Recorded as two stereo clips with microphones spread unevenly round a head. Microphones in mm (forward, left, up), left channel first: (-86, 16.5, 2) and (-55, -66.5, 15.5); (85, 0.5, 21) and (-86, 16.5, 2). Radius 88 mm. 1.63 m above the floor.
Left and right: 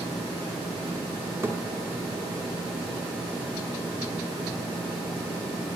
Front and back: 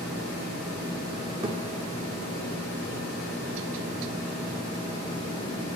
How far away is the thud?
About 2 m.